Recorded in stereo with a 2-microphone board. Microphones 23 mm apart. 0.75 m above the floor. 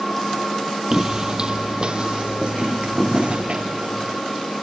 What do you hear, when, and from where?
0.9 s footsteps: 20° right (ahead or behind), 0.9 m; by 4.2 s 50° right (ahead or behind), 3 m